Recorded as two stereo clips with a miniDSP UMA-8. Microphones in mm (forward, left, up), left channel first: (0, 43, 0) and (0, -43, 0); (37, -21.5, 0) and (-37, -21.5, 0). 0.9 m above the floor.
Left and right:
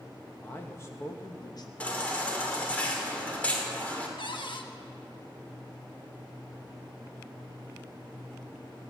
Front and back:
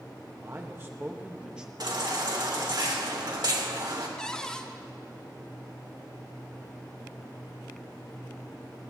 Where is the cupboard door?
80° left, 1.2 m.